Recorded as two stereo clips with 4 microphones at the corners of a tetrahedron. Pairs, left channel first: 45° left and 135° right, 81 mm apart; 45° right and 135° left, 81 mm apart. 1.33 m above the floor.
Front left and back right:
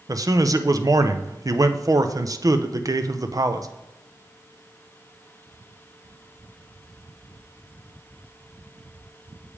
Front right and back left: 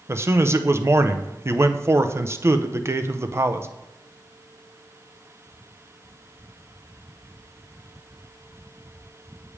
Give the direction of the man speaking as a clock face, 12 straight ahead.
6 o'clock.